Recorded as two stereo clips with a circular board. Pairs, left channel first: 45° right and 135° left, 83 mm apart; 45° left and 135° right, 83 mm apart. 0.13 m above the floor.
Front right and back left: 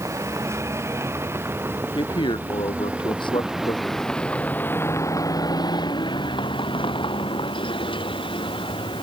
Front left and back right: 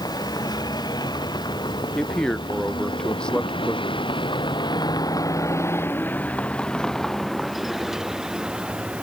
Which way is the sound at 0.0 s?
80° left.